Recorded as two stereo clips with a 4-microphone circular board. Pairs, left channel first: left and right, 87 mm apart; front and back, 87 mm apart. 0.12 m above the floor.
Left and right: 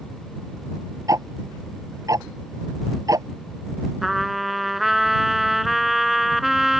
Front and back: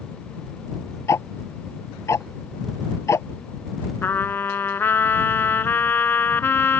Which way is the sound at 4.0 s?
5° right.